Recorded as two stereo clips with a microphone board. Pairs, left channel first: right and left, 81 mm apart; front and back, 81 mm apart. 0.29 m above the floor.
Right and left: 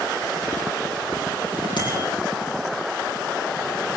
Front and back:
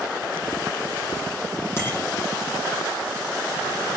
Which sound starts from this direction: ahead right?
A bicycle bell, at 1.8 s.